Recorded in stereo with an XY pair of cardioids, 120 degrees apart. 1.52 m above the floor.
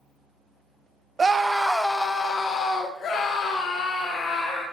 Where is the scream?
25° right, 0.8 m; by 4.6 s 70° left, 2.5 m.